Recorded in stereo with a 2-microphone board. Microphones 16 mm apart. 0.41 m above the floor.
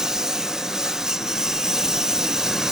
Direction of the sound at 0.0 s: 35° right (ahead or behind).